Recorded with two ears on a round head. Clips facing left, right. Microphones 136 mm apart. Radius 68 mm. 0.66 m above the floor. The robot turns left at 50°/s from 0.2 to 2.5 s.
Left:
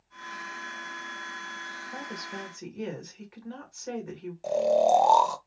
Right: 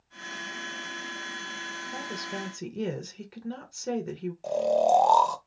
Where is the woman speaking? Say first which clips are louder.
Right 2 dB; 10° right (ahead or behind), 1.7 m; by 4.3 s 40° right (ahead or behind), 1.7 m.